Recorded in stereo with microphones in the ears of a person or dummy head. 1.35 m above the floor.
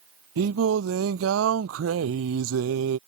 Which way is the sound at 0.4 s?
70° right (ahead or behind).